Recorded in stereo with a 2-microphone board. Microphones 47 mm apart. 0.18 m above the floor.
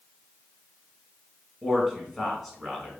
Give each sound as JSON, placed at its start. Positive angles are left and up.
{"t": 1.6, "sound": "a man speaking", "side_deg": 0, "distance_m": 1.4}